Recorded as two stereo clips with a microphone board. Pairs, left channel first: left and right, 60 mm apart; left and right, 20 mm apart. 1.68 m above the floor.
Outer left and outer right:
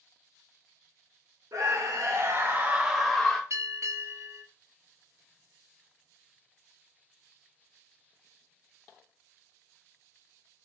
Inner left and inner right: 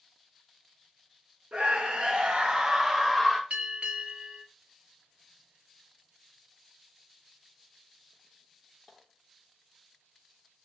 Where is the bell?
55° right (ahead or behind), 0.8 m.